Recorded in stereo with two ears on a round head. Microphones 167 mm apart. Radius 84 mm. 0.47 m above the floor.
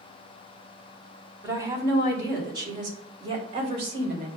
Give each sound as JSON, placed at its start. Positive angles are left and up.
{"t": 1.4, "sound": "a woman speaking", "side_deg": -15, "distance_m": 3.0}